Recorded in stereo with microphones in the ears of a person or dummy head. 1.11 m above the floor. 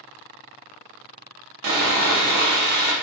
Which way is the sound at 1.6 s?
60° right (ahead or behind).